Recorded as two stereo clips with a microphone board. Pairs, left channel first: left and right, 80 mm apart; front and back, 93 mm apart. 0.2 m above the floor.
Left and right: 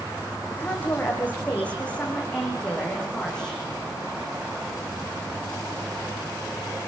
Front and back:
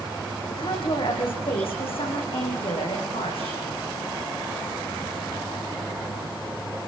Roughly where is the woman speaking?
Ahead.